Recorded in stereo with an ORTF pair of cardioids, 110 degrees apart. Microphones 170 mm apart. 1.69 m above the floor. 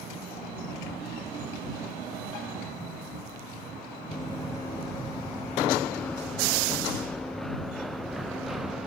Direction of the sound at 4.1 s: 15° left.